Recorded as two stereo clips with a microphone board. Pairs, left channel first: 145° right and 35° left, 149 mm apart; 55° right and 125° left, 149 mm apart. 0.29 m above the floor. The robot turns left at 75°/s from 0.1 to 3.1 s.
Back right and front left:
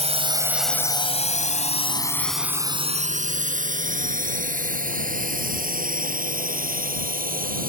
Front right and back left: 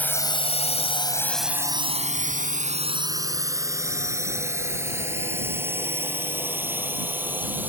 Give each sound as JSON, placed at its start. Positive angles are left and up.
{"t": 0.0, "sound": "a drone", "azimuth_deg": 20}